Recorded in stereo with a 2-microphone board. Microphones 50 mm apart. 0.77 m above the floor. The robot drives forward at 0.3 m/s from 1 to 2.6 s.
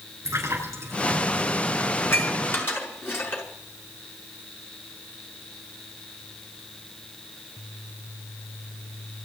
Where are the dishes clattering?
50° left (ahead or behind), 5 m.